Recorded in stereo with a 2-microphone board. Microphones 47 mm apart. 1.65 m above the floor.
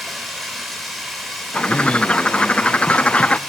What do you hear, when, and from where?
0.0 s running water: 5° left (ahead or behind), 7 m
1.5 s a bird: 25° left (ahead or behind), 0.6 m